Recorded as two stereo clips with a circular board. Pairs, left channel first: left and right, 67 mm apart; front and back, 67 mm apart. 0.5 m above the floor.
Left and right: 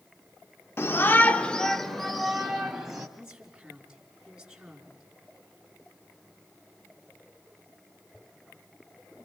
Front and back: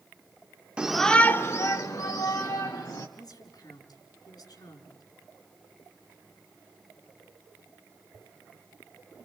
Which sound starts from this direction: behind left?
A shout, at 0.8 s.